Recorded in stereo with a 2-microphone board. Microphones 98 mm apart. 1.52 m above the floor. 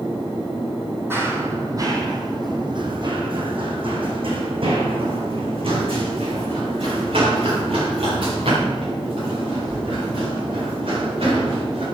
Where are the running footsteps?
25° right (ahead or behind), 2 m; by 11.8 s 65° right (ahead or behind), 9 m.